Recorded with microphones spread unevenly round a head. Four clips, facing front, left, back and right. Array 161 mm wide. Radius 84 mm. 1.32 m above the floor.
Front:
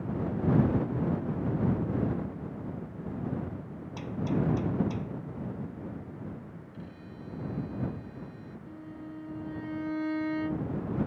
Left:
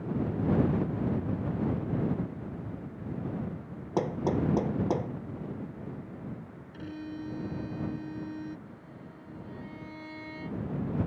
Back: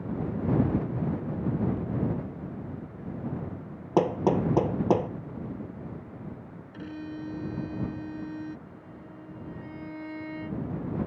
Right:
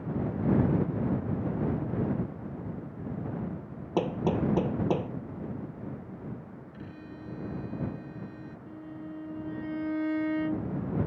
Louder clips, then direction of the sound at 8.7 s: Right 7 dB, front 3 dB; 60° right.